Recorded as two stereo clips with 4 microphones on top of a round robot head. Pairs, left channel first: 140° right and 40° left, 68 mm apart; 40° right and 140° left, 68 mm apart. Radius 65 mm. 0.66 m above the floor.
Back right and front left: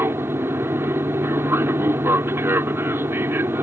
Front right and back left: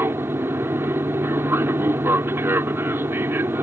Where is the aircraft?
90° left.